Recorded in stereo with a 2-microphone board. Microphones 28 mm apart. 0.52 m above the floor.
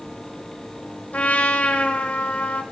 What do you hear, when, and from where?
1.1 s a trumpet: 70° left (ahead or behind), 0.8 m